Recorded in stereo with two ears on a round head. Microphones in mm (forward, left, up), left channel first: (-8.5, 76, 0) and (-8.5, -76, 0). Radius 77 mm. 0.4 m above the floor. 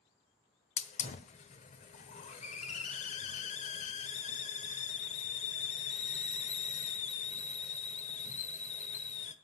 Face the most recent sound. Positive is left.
turn(degrees=40)  # may be behind; listen again after turning